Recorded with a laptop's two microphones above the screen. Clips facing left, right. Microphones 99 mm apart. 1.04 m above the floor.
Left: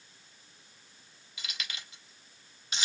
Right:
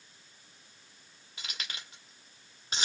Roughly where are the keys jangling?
Right.